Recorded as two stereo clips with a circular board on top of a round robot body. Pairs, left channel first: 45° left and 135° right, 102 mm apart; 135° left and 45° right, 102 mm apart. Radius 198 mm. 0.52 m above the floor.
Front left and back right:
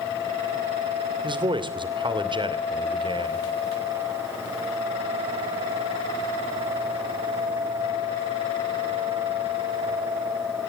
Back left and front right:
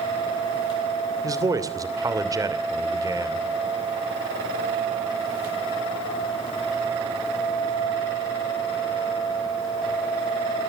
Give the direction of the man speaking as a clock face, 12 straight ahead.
3 o'clock.